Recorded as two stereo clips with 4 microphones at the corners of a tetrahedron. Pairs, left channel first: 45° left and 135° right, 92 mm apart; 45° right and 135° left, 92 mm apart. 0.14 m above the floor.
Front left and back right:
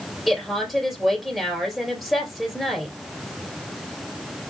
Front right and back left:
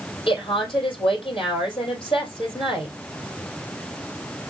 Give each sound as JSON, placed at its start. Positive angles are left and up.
{"t": 0.3, "sound": "a woman speaking", "azimuth_deg": -45, "distance_m": 2.5}